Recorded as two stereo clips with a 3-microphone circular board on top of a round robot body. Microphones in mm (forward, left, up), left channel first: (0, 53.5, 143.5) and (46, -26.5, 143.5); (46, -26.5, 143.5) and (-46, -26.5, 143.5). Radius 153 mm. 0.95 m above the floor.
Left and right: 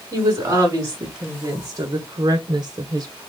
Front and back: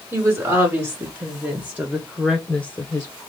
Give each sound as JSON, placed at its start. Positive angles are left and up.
{"t": 0.1, "sound": "a woman speaking", "azimuth_deg": -125, "distance_m": 2.0}